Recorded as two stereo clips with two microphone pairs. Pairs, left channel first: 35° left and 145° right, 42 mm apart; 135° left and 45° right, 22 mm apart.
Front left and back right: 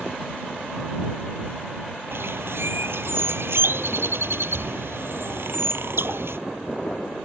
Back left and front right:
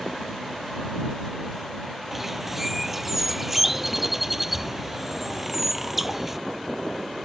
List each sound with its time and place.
2.1 s a bird: 125° right